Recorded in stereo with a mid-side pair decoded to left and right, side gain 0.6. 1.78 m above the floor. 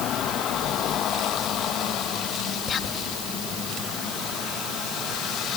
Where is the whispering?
40° left.